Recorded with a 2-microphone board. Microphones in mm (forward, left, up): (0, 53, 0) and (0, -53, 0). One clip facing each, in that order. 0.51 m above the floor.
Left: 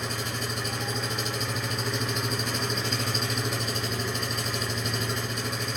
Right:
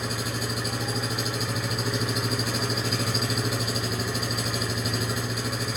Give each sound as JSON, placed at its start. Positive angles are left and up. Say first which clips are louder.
{"t": 0.0, "sound": "an engine running", "louder": "right 2 dB", "side_deg": -5, "distance_m": 2.0}